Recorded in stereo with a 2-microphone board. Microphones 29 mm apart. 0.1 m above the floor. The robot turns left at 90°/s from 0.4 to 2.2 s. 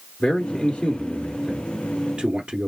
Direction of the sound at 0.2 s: 25° left (ahead or behind).